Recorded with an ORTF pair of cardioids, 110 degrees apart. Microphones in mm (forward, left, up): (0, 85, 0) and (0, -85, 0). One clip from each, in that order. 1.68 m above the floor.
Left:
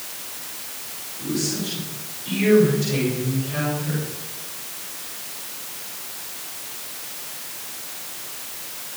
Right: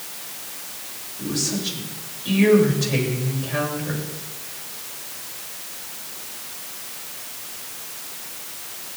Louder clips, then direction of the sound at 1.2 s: Right 1 dB; 45° right.